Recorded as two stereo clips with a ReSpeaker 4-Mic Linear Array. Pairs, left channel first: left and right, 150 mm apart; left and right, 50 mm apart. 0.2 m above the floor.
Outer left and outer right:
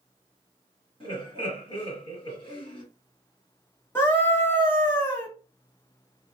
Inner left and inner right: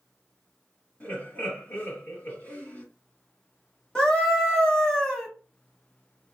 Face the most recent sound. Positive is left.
turn(degrees=15)  # may be behind; listen again after turning